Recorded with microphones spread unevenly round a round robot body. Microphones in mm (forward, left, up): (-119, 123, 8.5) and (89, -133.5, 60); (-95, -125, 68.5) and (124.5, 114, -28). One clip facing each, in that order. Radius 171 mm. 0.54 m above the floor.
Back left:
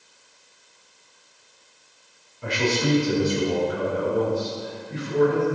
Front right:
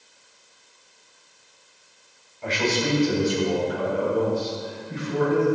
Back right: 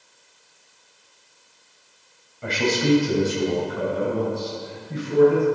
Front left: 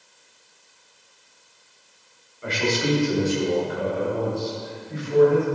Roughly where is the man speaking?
Behind.